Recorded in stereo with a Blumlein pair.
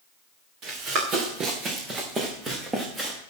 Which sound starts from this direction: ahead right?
Running footsteps, at 0.6 s.